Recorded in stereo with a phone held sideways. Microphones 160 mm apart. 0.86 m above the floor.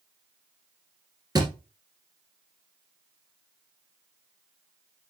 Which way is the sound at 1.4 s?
25° right (ahead or behind).